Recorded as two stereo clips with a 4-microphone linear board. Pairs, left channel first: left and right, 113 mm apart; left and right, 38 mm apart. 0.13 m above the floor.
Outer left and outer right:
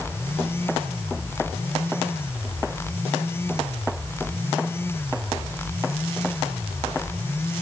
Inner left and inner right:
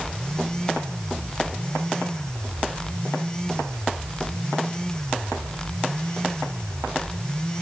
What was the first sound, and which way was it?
Only background noise.